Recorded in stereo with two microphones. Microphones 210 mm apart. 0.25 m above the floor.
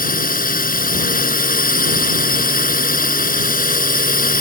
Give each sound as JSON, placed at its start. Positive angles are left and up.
{"t": 0.0, "sound": "a drone", "side_deg": 45}